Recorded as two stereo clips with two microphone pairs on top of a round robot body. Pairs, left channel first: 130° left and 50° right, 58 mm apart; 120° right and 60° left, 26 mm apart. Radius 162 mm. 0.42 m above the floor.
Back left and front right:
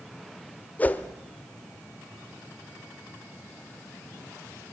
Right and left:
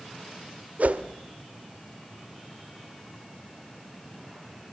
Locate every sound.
0.8 s a whoosh: 70° left, 1.2 m